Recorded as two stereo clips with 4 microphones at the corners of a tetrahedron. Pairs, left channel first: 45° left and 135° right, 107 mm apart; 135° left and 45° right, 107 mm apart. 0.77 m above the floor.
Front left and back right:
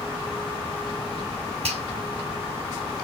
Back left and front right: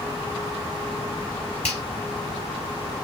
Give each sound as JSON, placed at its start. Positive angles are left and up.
{"t": 1.6, "sound": "a finger snap", "azimuth_deg": -145, "distance_m": 4.5}